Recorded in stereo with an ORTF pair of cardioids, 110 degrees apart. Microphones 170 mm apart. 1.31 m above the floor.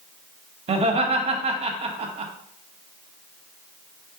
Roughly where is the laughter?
Ahead right.